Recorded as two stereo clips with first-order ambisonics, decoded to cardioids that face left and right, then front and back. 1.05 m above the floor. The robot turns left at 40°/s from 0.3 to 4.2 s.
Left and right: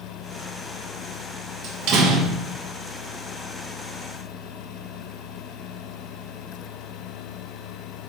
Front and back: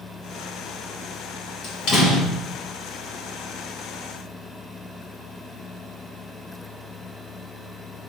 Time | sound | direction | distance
1.6 | a door slam | 45° right | 0.9 m